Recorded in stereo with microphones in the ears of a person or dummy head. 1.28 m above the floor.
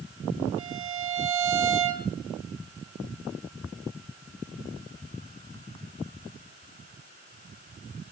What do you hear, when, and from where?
0.6 s a violin: 35° right (ahead or behind), 3 m